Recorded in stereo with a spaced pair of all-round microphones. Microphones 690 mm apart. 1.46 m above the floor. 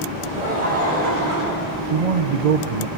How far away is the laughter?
About 7.5 m.